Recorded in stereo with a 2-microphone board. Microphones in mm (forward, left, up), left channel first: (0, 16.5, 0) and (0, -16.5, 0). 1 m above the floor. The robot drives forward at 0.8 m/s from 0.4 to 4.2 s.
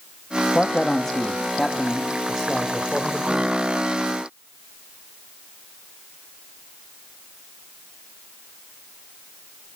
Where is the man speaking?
25° left (ahead or behind), 1.1 m; by 3.5 s 10° left (ahead or behind), 3.5 m.